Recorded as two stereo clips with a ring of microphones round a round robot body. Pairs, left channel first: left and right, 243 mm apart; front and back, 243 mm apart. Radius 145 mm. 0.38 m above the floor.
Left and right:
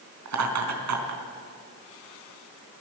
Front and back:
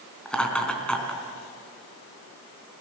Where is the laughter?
85° right, 4.5 m.